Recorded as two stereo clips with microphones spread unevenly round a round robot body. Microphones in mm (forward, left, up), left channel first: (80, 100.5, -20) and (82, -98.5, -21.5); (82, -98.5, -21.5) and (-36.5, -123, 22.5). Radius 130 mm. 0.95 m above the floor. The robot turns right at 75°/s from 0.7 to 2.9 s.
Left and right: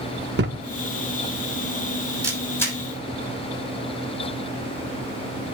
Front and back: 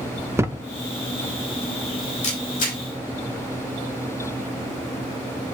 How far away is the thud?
About 0.7 m.